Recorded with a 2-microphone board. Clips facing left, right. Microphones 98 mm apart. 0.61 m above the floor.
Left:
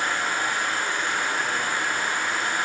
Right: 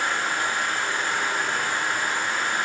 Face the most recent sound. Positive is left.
turn(degrees=-30)  # may be behind; listen again after turning